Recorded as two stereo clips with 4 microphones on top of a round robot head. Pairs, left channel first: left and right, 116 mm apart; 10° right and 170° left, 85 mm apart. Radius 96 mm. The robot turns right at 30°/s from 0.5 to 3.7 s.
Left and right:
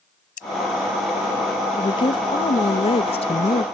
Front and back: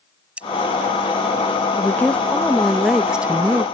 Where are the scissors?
95° left.